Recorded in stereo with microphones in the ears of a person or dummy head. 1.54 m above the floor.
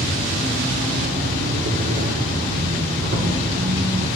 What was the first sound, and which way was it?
An insect, 45° right (ahead or behind).